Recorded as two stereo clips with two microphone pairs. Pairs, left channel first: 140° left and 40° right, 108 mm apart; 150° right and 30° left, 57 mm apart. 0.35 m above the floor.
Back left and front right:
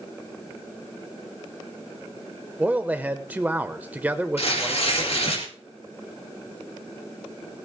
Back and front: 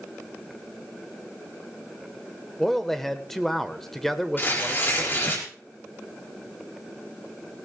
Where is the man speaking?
70° right, 0.9 m.